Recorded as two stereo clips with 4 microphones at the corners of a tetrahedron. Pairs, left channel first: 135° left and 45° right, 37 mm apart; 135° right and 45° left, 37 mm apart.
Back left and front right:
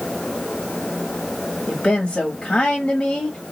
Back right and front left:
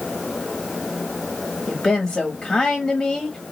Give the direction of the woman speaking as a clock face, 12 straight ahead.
7 o'clock.